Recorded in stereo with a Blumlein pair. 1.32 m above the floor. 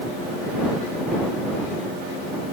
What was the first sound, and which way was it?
Only background noise.